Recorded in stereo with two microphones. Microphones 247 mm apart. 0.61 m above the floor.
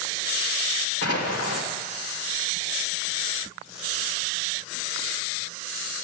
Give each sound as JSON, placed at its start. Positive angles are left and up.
{"t": 1.0, "sound": "an explosion", "side_deg": 75, "distance_m": 1.7}